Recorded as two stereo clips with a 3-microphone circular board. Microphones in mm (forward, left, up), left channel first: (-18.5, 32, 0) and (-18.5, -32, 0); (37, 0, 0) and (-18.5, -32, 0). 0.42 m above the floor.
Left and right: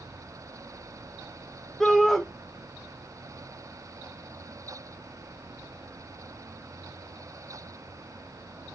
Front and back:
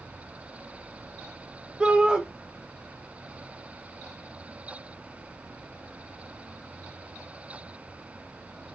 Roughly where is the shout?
Behind.